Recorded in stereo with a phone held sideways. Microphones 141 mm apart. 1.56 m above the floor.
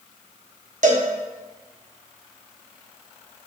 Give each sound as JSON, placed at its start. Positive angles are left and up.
{"t": 0.8, "sound": "a cowbell", "side_deg": -60, "distance_m": 0.9}